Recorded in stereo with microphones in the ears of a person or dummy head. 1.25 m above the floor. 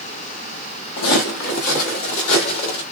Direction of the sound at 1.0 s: 55° left (ahead or behind).